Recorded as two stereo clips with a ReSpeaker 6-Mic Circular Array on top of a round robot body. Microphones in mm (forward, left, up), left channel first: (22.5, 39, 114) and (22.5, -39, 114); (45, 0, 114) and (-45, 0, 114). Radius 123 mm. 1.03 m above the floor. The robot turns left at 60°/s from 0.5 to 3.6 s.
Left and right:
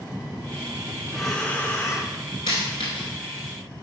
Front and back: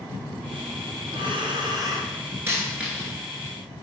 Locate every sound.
1.1 s breathing: 175° right, 1.3 m; by 2.1 s 120° left, 1.3 m
2.5 s a dropped coin: 125° left, 1.2 m; by 3.1 s 85° left, 1.2 m